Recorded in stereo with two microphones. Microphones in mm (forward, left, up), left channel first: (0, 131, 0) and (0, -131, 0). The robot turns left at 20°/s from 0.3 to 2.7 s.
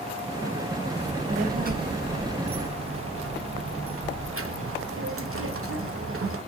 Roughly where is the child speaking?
Ahead.